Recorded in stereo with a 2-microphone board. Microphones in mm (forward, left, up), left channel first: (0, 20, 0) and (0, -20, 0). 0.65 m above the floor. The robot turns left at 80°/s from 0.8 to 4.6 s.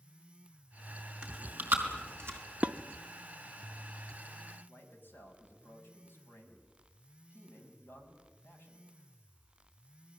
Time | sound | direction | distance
1.2 | chewing | 20° right (ahead or behind) | 5 m
2.6 | dishes clattering | 30° right (ahead or behind) | 0.8 m
4.7 | a man speaking | 60° left (ahead or behind) | 5.5 m